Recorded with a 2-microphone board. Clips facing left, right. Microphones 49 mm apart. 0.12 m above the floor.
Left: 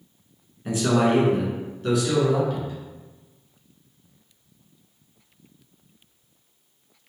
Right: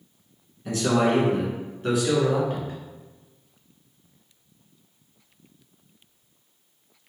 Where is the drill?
No drill in this recording.